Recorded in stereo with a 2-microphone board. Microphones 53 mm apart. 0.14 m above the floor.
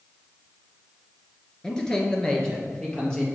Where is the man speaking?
15° left (ahead or behind), 1.8 m.